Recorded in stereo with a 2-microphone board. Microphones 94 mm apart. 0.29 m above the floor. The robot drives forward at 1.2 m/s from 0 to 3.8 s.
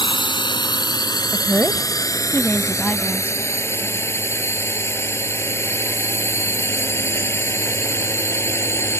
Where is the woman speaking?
25° left (ahead or behind); by 3.4 s 10° left (ahead or behind).